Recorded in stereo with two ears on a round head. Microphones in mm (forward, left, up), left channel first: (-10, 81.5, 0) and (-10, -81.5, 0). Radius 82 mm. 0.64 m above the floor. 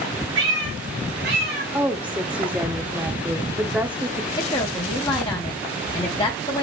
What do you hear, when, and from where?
0.3 s a cat meowing: 70° right (ahead or behind), 3.5 m; by 1.6 s 60° right (ahead or behind), 3 m
1.7 s a woman speaking: 10° right (ahead or behind), 0.7 m
4.4 s a woman speaking: 25° left (ahead or behind), 0.9 m